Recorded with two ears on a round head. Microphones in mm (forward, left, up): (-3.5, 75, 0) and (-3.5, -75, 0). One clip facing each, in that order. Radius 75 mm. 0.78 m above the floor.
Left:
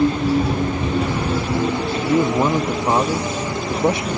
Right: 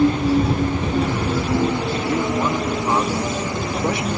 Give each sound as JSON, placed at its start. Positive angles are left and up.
{"t": 2.0, "sound": "a man speaking", "side_deg": 20}